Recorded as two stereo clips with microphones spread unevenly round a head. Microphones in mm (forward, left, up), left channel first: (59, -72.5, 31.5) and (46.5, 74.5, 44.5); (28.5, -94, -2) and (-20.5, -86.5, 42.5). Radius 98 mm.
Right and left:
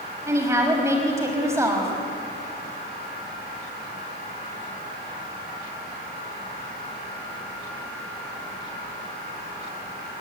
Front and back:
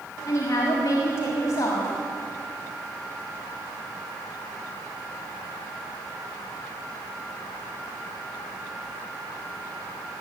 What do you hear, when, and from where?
0.3 s a woman speaking: 25° left, 5.5 m